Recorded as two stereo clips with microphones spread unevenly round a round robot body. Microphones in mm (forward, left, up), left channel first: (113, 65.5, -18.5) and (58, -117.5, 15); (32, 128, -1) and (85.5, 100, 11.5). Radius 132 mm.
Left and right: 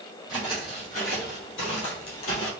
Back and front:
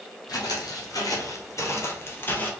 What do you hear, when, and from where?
0.3 s footsteps: 155° left, 1.3 m; by 2.5 s 85° left, 1.2 m